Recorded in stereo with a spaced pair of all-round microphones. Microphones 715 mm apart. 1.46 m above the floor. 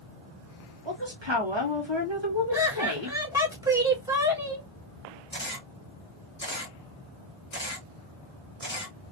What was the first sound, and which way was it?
A woman speaking, 40° right (ahead or behind).